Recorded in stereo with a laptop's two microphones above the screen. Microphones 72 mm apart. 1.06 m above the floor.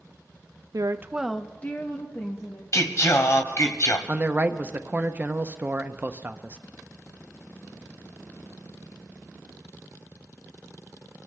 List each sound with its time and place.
0.7 s a woman speaking: 60° right (ahead or behind), 0.6 m; by 2.6 s 45° left (ahead or behind), 1.6 m
2.7 s singing: 50° left (ahead or behind), 1.3 m
4.1 s a man speaking: 25° right (ahead or behind), 0.9 m